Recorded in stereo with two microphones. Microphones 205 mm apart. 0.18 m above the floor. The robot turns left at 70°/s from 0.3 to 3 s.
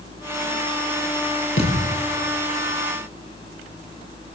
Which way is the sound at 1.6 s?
80° left.